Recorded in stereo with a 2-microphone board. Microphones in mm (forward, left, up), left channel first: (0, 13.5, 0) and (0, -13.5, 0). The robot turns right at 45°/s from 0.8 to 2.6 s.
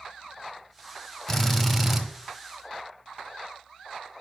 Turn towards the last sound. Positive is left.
turn(degrees=-135)